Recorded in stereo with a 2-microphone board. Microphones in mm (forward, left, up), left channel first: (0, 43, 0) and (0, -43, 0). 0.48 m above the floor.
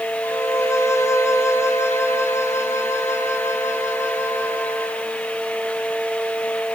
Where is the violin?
35° left (ahead or behind), 3.5 m.